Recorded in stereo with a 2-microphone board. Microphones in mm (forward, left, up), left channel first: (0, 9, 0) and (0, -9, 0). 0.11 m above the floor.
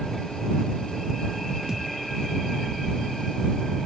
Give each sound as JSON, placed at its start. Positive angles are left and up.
{"t": 1.7, "sound": "a thud", "side_deg": -35}